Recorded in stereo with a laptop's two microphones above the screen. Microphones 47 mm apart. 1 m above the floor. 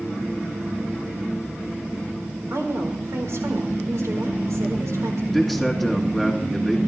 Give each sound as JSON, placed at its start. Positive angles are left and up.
{"t": 2.5, "sound": "a woman speaking", "side_deg": -75, "distance_m": 4.5}
{"t": 5.3, "sound": "a man speaking", "side_deg": -5, "distance_m": 2.0}